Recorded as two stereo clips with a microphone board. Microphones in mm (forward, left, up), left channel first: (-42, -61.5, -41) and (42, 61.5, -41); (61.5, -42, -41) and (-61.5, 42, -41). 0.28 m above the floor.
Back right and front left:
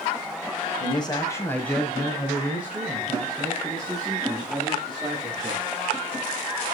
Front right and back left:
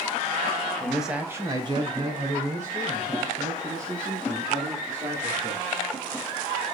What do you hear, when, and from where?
0.8 s a man speaking: 115° right, 1.4 m; by 5.6 s 120° left, 5.5 m